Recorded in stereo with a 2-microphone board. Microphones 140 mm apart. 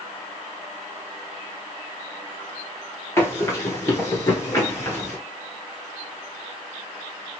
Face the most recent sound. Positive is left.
turn(degrees=20)  # may be behind; listen again after turning